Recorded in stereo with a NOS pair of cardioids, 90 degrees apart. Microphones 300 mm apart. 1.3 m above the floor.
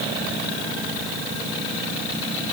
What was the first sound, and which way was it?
Only background noise.